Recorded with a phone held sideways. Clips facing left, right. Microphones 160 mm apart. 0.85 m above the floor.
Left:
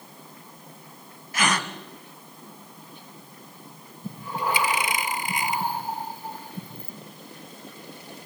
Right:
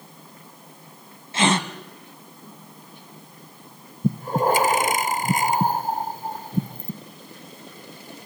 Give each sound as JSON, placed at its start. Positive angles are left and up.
{"t": 1.3, "sound": "a gasp", "side_deg": -25, "distance_m": 1.4}
{"t": 4.0, "sound": "breathing", "side_deg": -45, "distance_m": 0.7}